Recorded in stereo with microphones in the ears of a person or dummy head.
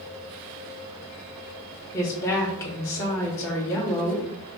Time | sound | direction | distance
1.9 | a woman speaking | 10° left (ahead or behind) | 1.1 m